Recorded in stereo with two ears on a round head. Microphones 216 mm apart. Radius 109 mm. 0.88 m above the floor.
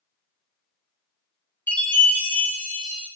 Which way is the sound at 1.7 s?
10° left (ahead or behind).